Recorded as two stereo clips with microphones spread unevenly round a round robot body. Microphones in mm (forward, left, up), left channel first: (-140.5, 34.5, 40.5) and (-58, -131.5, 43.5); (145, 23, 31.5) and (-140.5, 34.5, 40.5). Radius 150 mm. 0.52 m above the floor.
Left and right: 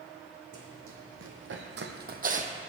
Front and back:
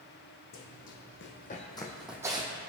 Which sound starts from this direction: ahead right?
Running footsteps, at 0.5 s.